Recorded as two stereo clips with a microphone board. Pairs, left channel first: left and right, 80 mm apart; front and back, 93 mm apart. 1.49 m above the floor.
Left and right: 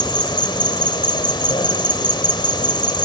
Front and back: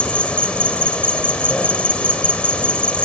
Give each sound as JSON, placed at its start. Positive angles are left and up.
{"t": 0.0, "sound": "an insect", "azimuth_deg": 75, "distance_m": 3.0}